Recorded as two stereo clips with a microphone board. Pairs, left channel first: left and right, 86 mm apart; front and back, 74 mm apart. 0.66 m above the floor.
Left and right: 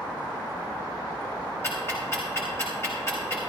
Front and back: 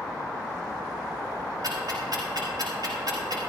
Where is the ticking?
150° left, 4 m.